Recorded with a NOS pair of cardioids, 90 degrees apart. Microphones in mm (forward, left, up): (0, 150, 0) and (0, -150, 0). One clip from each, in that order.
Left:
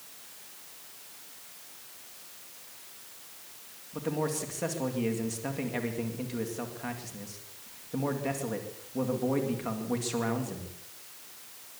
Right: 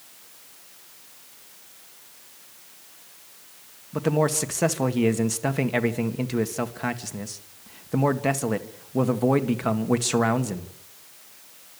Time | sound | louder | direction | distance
3.9 | a man speaking | right 9 dB | 65° right | 1.9 m